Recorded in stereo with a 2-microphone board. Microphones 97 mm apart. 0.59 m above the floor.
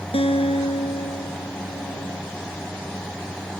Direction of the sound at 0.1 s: 75° left (ahead or behind).